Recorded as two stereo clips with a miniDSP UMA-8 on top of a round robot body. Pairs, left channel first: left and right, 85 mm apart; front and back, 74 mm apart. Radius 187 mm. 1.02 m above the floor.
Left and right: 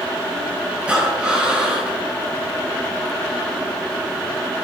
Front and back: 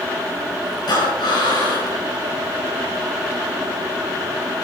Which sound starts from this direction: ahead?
Breathing, at 0.9 s.